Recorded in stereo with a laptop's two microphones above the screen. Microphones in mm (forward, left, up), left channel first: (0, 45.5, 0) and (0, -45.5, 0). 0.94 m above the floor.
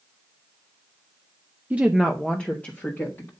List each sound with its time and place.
1.7 s a woman speaking: 20° right (ahead or behind), 0.5 m; by 3.3 s 25° left (ahead or behind), 1.6 m